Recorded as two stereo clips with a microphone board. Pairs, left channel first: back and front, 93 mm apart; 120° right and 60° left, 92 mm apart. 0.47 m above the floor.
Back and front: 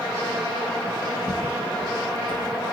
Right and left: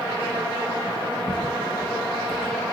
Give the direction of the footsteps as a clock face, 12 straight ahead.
2 o'clock.